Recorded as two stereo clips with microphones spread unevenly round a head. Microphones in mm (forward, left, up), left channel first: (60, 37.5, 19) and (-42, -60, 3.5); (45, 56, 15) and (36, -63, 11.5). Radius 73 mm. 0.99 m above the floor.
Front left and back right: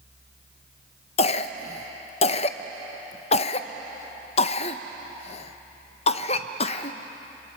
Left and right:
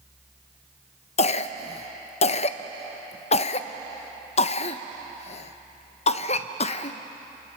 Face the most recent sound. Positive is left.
turn(degrees=85)